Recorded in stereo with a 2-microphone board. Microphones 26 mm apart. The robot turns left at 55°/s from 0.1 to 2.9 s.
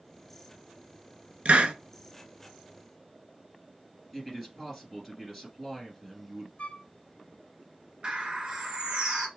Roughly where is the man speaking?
Centre.